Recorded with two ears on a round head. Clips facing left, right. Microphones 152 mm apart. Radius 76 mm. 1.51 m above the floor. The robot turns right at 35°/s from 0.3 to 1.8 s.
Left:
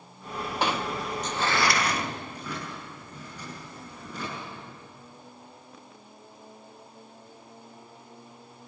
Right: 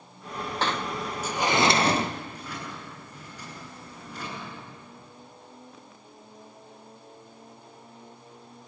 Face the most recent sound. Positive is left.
turn(degrees=85)